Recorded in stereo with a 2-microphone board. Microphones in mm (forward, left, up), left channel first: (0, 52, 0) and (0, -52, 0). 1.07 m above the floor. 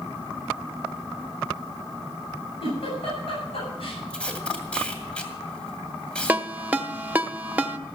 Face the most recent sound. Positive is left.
turn(degrees=-15)  # may be behind; listen again after turning